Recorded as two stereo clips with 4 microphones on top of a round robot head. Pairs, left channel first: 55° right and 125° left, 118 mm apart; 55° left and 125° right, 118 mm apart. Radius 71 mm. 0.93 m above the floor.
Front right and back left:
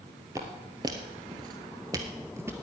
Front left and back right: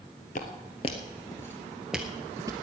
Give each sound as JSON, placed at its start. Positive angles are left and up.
{"t": 0.3, "sound": "footsteps", "azimuth_deg": 60, "distance_m": 1.3}